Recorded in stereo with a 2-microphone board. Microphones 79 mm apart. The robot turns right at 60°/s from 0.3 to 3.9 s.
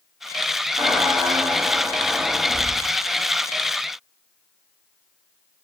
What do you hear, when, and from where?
0.8 s a squeak: 115° right, 4 m; by 2.9 s 15° left, 4 m